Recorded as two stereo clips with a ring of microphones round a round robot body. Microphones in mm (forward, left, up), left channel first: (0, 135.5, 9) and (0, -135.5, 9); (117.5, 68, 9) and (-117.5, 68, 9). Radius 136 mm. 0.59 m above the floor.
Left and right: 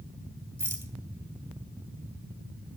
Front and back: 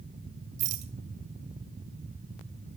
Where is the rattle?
170° right, 2.5 m.